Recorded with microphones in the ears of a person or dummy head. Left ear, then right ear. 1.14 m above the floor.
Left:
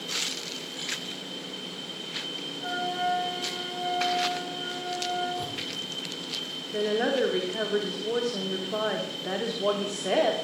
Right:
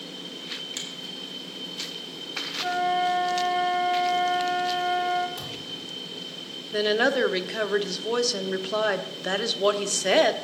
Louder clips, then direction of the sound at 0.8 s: Right 1 dB; 65° right (ahead or behind).